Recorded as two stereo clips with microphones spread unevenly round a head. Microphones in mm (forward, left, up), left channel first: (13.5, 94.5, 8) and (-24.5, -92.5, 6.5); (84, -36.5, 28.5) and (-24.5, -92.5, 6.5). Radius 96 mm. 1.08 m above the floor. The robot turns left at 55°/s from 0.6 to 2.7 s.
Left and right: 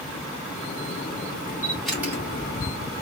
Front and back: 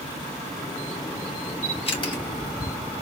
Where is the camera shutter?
5° left, 2 m; by 2.2 s 30° right, 2 m.